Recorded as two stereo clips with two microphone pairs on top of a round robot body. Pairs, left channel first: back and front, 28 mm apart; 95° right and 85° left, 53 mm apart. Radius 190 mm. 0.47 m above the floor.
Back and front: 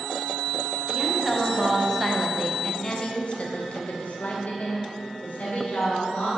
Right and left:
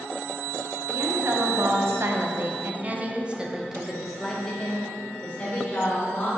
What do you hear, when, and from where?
0.9 s a woman speaking: 75° left, 1.7 m; by 6.3 s 160° right, 2.5 m